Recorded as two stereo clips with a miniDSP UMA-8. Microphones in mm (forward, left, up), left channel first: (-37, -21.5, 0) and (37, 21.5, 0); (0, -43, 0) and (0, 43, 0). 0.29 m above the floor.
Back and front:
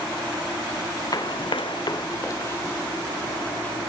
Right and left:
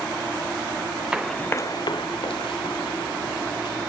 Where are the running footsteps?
170° left, 1.0 m; by 3.8 s 75° right, 3.5 m.